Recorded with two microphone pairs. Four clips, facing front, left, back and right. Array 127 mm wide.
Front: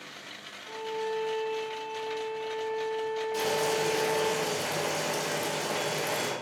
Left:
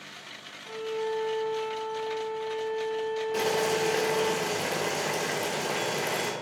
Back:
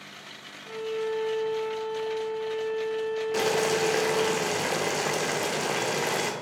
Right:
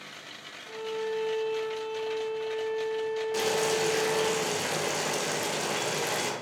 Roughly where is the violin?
Behind.